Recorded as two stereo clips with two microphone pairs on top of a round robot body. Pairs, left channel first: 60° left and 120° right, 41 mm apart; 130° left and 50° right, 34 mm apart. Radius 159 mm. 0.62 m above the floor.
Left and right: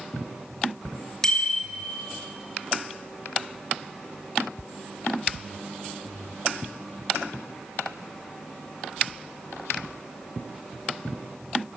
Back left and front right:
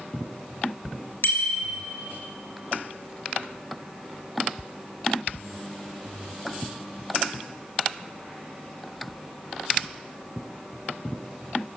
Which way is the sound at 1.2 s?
130° left.